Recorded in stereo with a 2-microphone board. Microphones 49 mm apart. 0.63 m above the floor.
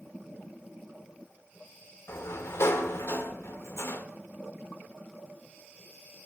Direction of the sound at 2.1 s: 65° left (ahead or behind).